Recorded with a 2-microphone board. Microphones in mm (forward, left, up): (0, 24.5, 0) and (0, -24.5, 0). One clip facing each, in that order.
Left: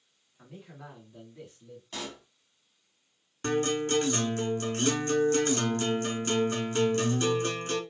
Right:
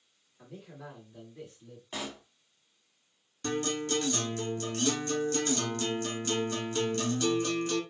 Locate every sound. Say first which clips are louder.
0.4 s a man speaking: right 1 dB; 25° left (ahead or behind), 2.0 m; by 1.8 s 5° right (ahead or behind), 1.5 m
1.9 s a pop: right 1 dB; 15° right (ahead or behind), 0.8 m
3.4 s a guitar: left 4 dB; 40° left (ahead or behind), 1.0 m